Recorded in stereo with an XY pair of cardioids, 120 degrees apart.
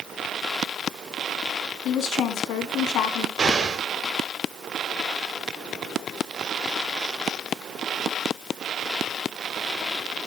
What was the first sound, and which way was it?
A woman speaking, 70° left.